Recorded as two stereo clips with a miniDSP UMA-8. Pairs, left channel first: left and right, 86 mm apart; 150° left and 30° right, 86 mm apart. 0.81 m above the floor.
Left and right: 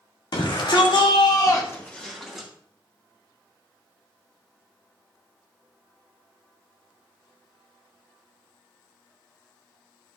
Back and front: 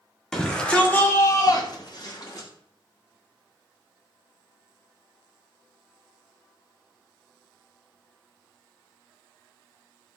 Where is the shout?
65° left, 2 m; by 2.5 s 175° right, 1.9 m.